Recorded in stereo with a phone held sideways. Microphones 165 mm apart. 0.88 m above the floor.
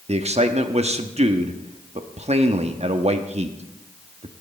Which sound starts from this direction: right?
A man speaking, at 0.1 s.